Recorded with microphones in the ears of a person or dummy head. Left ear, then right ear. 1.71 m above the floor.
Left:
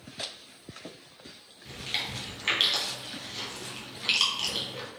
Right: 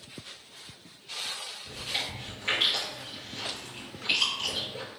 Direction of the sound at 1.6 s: 40° left (ahead or behind).